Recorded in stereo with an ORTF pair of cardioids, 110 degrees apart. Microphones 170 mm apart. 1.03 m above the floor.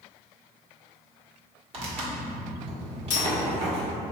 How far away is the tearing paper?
About 0.9 m.